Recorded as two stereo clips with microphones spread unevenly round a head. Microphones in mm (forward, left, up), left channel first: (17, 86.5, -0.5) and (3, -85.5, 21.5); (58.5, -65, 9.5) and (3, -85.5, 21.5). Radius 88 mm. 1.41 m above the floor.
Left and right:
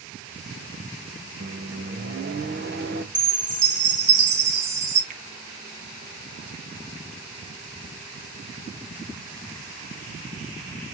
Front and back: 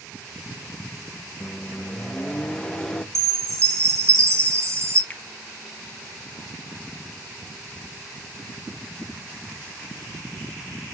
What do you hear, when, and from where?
1.4 s a microwave: 60° right, 1.0 m
3.1 s a chime: 120° right, 4.5 m
5.1 s a finger snap: 50° right, 1.3 m